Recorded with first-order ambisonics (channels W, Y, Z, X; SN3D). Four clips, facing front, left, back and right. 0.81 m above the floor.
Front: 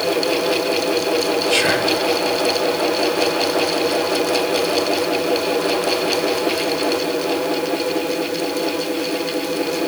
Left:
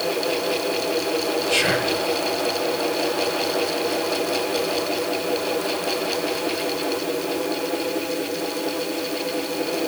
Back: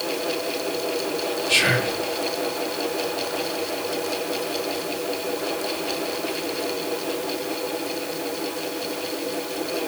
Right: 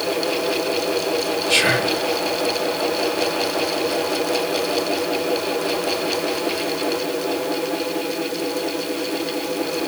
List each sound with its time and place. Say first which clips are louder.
1.5 s whispering: right 4 dB, front 1 dB; 130° right, 1.5 m